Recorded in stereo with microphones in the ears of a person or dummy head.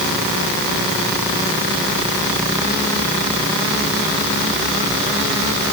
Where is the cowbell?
No cowbell in this recording.